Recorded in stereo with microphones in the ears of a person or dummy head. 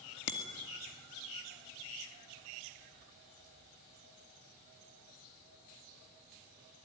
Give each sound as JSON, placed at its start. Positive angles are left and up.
{"t": 0.3, "sound": "a bicycle bell", "side_deg": 65, "distance_m": 2.0}